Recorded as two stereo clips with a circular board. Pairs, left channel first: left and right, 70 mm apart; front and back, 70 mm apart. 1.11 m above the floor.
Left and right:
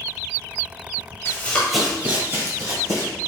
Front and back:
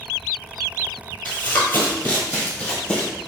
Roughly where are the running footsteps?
Ahead left.